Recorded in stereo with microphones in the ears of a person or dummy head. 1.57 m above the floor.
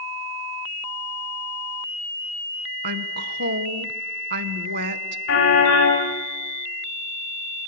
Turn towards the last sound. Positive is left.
turn(degrees=60)  # may be behind; listen again after turning